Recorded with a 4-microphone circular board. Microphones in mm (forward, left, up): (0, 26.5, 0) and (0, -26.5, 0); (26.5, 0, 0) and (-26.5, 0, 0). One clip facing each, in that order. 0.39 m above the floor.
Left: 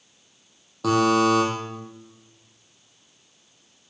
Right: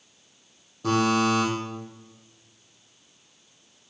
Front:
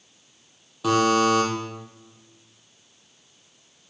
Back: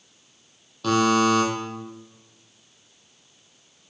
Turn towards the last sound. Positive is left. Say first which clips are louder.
# left 3 dB, even
turn(degrees=80)